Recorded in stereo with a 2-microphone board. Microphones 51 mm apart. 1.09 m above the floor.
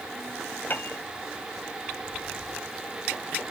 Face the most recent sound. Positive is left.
turn(degrees=40)  # may be behind; listen again after turning